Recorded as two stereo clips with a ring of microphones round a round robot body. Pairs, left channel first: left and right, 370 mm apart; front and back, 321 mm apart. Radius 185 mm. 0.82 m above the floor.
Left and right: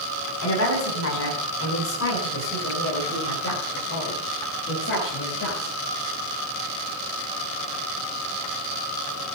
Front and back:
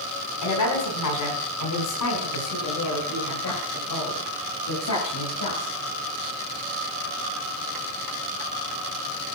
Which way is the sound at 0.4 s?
35° left.